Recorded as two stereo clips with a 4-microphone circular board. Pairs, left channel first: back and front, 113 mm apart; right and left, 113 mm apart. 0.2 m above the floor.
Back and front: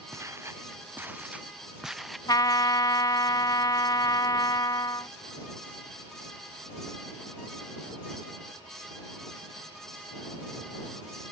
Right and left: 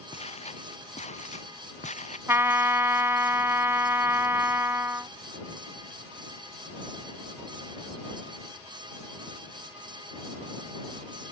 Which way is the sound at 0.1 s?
65° right.